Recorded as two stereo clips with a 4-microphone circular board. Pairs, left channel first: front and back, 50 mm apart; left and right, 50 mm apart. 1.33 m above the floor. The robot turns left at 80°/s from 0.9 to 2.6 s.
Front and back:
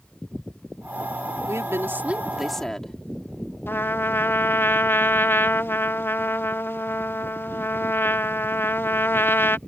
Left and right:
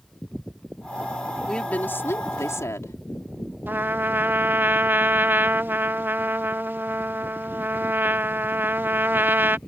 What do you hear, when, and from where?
1.5 s a woman speaking: 170° left; by 3.0 s 80° left
3.7 s a trumpet: 45° right